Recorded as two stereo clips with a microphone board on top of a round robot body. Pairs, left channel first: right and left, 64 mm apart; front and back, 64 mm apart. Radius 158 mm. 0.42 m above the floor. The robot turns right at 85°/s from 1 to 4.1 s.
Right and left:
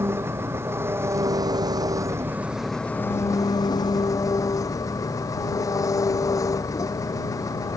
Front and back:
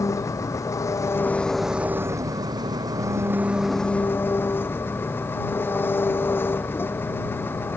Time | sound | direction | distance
0.0 | an engine running | 40° left | ?